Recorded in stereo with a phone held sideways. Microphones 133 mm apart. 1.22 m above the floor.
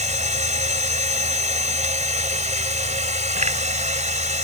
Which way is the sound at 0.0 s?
65° right (ahead or behind).